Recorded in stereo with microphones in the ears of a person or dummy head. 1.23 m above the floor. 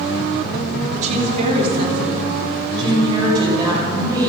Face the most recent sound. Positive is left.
turn(degrees=-20)  # may be behind; listen again after turning